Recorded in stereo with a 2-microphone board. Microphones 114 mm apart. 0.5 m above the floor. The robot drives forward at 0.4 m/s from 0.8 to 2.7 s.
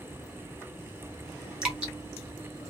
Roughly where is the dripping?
Centre.